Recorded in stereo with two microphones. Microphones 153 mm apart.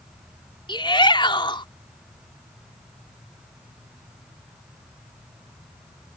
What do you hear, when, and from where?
0.7 s a shout: 35° left (ahead or behind)